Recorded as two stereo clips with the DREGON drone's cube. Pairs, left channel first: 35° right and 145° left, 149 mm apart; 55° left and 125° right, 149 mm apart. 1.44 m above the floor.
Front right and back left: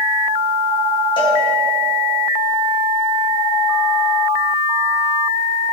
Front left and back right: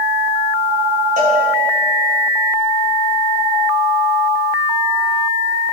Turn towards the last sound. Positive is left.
turn(degrees=-90)